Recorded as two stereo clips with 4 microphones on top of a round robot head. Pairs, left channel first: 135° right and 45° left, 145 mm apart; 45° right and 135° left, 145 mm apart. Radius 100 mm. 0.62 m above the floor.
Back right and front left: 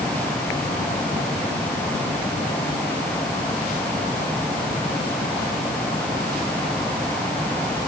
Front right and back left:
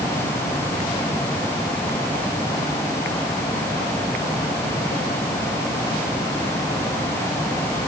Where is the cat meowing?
I don't hear a cat meowing.